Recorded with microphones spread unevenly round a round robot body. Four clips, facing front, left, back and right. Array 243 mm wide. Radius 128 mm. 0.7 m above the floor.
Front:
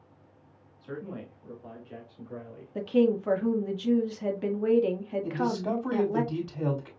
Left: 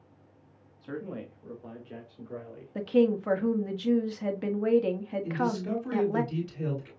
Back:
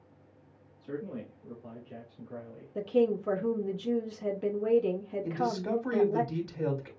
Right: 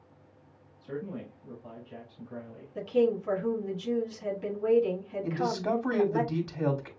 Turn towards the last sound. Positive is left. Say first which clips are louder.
# right 1 dB, front 2 dB
turn(degrees=-55)